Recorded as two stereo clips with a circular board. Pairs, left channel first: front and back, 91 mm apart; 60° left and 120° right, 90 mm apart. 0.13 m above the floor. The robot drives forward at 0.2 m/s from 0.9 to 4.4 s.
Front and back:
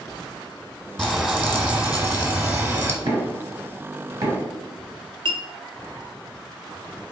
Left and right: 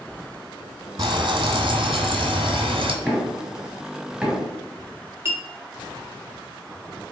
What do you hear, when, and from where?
1.0 s frying: 90° right, 0.9 m; by 3.0 s 115° right, 0.9 m
3.0 s knocking: 155° left, 1.9 m; by 4.5 s 160° left, 2 m
5.2 s a clink: straight behind, 1.3 m